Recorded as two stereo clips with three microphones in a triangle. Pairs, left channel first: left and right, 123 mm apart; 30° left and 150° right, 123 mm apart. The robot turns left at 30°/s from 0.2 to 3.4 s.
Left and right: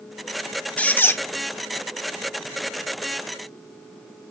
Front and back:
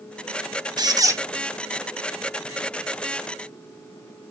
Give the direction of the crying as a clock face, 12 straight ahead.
No crying in this recording.